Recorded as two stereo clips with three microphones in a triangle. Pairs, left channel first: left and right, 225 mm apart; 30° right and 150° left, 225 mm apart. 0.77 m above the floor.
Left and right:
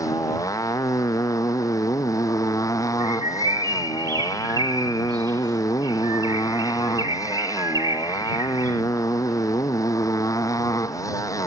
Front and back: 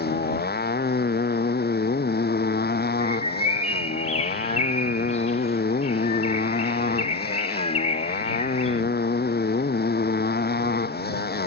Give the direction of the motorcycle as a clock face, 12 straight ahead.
12 o'clock.